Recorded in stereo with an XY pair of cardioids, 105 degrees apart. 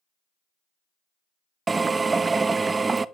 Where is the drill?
25° right, 0.5 m.